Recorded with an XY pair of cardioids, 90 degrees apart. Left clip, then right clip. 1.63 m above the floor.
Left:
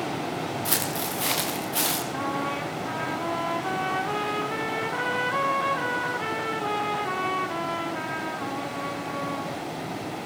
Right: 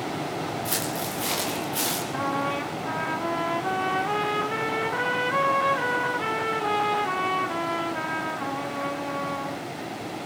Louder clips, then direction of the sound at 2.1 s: Right 2 dB; 15° right.